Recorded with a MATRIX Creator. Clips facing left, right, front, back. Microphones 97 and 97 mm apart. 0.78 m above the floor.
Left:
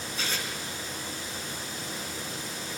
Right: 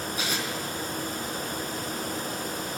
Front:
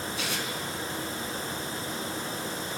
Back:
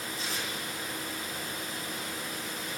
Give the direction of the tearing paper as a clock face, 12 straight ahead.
12 o'clock.